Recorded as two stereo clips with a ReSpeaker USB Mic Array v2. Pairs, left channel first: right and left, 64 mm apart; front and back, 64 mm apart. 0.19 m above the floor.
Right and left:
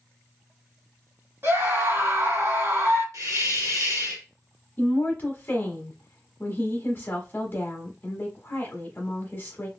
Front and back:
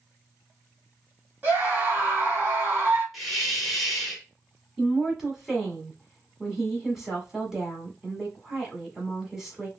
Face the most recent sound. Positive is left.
turn(degrees=-100)